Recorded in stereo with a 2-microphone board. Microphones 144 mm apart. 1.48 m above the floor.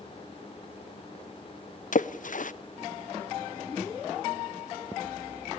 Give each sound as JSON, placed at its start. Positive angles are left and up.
{"t": 1.9, "sound": "a splash", "side_deg": 65, "distance_m": 0.5}